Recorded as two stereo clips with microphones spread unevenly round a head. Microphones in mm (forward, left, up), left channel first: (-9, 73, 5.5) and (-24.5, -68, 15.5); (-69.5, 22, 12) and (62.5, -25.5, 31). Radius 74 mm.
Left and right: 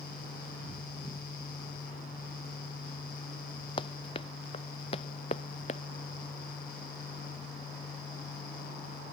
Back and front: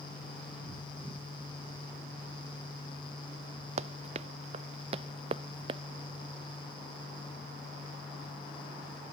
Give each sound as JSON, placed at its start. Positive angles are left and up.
{"t": 3.8, "sound": "running footsteps", "azimuth_deg": 25}